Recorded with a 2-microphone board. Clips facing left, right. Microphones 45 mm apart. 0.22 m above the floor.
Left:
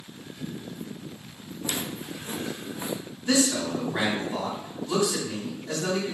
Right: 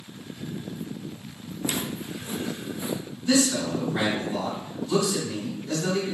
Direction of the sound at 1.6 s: 30° right (ahead or behind).